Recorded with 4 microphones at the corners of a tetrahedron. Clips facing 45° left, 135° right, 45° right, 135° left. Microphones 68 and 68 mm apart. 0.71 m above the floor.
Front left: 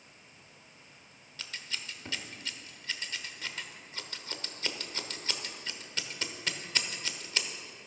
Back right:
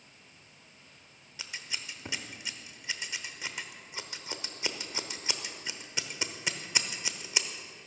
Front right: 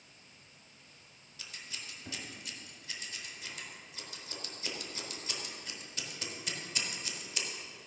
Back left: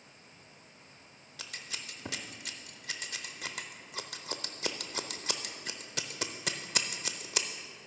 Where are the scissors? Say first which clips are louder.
Even, back left 3 dB; 150° left, 0.8 m.